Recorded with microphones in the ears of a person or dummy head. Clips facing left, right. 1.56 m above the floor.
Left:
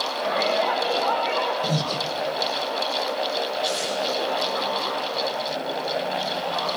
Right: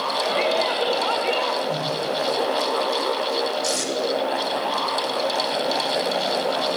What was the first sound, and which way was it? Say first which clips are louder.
A shout: right 1 dB; 35° right (ahead or behind).